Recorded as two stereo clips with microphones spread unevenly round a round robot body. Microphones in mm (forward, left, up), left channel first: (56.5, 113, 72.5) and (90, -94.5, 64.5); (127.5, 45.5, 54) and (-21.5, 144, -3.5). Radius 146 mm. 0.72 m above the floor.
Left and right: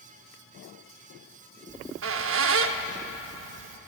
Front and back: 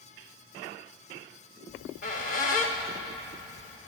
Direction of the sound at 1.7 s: 70° right.